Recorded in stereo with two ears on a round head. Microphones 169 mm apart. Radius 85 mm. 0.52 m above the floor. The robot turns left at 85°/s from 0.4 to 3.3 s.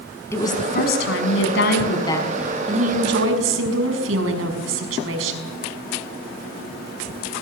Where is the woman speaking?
165° left, 5.5 m; by 5.5 s 80° right, 5.5 m.